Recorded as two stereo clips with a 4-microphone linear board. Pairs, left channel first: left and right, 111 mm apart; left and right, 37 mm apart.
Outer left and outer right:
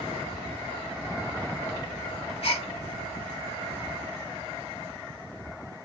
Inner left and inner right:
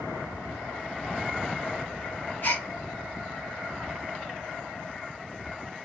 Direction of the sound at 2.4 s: 60° left (ahead or behind).